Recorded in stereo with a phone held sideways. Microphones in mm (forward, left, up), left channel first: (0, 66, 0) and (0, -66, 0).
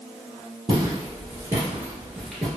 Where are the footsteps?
40° right (ahead or behind), 1.6 m; by 2.5 s 5° left (ahead or behind), 1.2 m.